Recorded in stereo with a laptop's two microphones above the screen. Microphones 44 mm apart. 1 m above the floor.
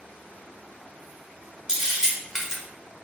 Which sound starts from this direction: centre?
A camera shutter, at 1.7 s.